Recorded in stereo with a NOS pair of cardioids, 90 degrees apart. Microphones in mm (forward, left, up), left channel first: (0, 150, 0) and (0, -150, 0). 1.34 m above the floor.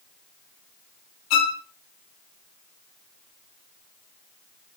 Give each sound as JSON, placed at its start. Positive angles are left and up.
{"t": 1.3, "sound": "a violin", "azimuth_deg": 65, "distance_m": 0.6}